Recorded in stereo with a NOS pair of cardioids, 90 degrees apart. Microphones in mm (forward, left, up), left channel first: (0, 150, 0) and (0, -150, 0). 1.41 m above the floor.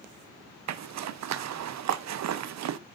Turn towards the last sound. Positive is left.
turn(degrees=-55)